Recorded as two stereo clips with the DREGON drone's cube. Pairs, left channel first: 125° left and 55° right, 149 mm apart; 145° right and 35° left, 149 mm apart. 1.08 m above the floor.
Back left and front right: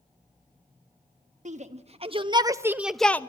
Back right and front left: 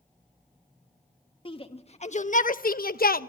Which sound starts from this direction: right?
A shout, at 1.4 s.